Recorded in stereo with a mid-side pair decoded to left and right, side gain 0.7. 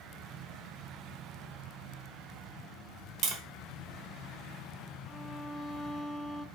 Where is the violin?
10° right, 0.7 m.